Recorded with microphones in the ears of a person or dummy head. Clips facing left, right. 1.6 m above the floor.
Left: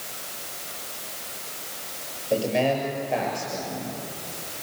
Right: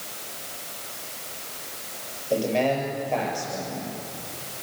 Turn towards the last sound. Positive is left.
turn(degrees=5)  # may be behind; listen again after turning